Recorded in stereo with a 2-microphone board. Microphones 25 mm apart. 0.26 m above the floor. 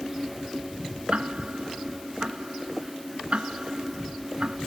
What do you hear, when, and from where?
1.1 s ticking: 55° right (ahead or behind)